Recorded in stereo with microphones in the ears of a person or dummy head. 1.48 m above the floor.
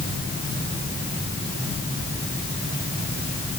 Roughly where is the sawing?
No sawing in this recording.